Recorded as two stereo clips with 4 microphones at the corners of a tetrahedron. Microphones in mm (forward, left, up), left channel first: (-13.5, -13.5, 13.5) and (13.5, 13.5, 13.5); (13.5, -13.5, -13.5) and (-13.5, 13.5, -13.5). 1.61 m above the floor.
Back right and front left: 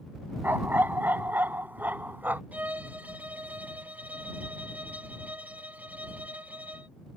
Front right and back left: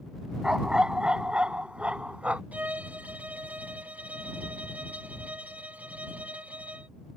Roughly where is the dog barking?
Ahead left.